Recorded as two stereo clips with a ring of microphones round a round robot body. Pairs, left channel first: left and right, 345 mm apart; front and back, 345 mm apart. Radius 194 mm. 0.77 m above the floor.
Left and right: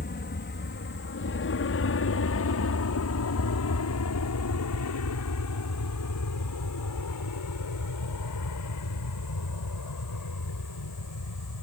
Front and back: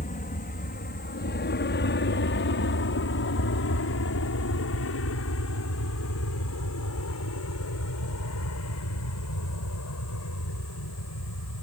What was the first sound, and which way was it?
An aircraft, 50° left.